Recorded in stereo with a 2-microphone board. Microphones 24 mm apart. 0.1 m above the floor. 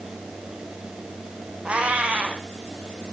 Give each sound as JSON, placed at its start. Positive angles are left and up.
{"t": 1.6, "sound": "a cat meowing", "side_deg": -65, "distance_m": 1.6}